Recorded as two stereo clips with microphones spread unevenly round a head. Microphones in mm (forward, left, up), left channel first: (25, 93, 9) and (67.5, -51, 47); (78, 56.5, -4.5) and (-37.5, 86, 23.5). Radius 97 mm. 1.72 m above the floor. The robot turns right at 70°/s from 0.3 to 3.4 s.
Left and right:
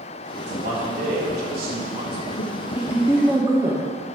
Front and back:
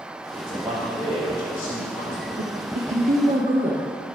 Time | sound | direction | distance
0.4 | a man speaking | 140° right | 4.5 m
2.4 | a woman speaking | 145° left | 0.8 m